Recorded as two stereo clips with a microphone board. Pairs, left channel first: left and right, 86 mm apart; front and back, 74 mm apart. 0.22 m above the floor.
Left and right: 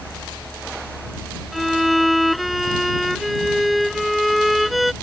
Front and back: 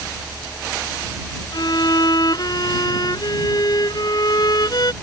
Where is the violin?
Straight ahead.